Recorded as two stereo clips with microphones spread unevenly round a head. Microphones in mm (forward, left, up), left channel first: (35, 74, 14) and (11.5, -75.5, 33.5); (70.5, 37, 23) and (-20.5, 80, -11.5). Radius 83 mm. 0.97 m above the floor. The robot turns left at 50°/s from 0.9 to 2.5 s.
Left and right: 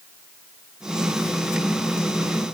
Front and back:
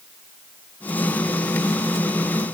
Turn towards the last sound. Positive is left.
No sound to turn to.